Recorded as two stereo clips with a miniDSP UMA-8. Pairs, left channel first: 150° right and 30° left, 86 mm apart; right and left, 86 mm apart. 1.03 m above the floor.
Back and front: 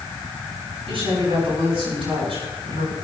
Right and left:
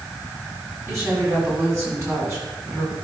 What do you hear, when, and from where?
0.9 s a woman speaking: 30° left, 6.5 m